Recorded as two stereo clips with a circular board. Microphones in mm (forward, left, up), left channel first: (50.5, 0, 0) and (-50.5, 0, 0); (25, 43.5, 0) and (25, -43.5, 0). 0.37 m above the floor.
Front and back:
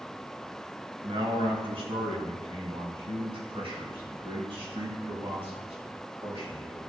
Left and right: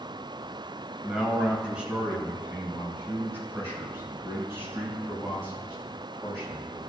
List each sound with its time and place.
1.0 s a man speaking: 175° right, 1.7 m; by 6.8 s 150° right, 6 m